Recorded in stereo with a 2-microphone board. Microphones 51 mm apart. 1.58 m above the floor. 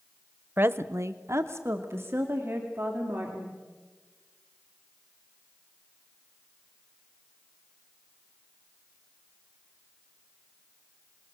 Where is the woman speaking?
40° right (ahead or behind), 0.8 m.